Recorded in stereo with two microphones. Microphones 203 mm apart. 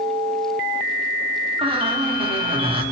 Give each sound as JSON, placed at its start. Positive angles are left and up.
{"t": 1.6, "sound": "a squeak", "side_deg": -25, "distance_m": 4.0}